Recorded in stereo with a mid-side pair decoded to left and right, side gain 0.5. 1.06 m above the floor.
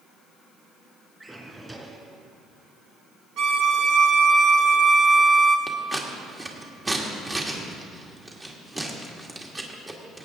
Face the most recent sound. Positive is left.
turn(degrees=-20)